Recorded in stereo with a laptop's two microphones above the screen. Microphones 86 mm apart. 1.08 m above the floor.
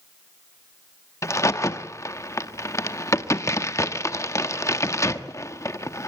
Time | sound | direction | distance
1.2 | a crack | 35° left (ahead or behind) | 1.1 m